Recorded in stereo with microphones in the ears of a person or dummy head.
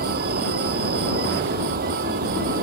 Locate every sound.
0.0 s an insect: 50° right (ahead or behind)